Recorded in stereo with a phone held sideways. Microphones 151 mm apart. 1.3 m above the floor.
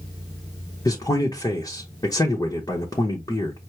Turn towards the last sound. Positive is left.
turn(degrees=25)  # may be behind; listen again after turning